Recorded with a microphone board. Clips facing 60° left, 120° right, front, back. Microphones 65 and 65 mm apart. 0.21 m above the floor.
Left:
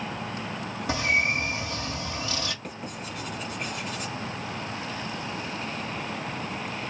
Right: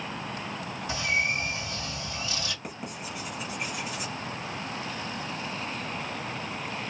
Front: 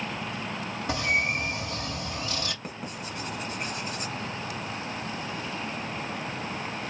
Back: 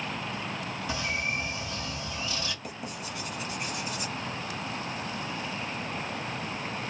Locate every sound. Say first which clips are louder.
0.9 s a bird: left 3 dB, front 6 dB; 35° left, 1.2 m
2.6 s writing: left 1 dB, front 1 dB; 45° right, 1.2 m